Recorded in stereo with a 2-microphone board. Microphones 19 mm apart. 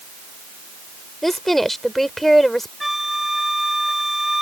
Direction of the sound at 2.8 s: 10° right (ahead or behind).